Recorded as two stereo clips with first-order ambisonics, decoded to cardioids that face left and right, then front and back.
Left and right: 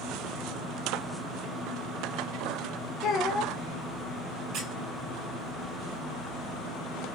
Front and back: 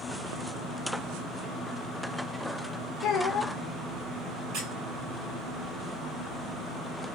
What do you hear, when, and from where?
3.0 s a child speaking: 45° left, 0.8 m
4.5 s a squeak: 135° right, 1.4 m